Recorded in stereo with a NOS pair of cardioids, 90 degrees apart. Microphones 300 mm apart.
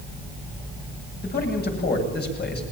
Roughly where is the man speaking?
Ahead left.